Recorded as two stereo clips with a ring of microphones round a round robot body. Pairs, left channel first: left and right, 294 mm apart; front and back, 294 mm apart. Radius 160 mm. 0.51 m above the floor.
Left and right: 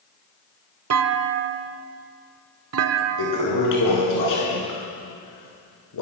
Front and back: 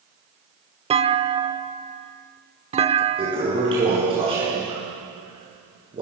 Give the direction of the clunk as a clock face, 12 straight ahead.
4 o'clock.